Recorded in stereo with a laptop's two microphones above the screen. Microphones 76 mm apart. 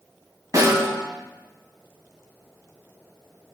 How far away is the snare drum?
About 3.5 m.